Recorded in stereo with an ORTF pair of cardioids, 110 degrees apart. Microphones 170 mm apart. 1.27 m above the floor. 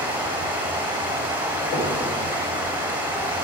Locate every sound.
0.0 s running water: 10° right, 3 m
1.7 s knocking: 60° left, 5 m